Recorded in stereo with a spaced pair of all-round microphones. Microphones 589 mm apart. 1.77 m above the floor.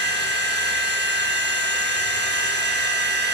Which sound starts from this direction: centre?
A machine running, at 0.0 s.